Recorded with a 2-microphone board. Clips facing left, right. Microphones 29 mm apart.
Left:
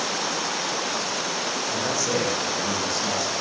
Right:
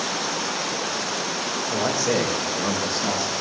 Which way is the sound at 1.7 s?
30° right (ahead or behind).